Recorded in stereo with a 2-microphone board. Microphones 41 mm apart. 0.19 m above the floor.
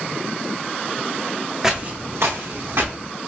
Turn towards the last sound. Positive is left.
turn(degrees=-70)  # may be behind; listen again after turning